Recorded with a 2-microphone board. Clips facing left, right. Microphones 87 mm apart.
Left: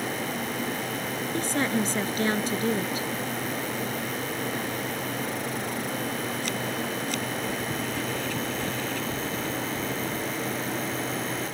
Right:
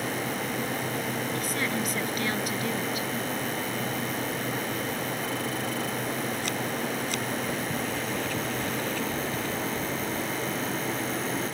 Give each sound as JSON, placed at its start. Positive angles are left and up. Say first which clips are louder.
{"t": 1.3, "sound": "a woman speaking", "louder": "left 3 dB", "side_deg": 25}